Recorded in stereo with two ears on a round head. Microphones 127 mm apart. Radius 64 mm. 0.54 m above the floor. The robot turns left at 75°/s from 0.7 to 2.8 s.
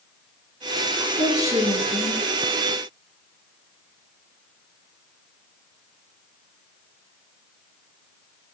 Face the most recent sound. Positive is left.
turn(degrees=105)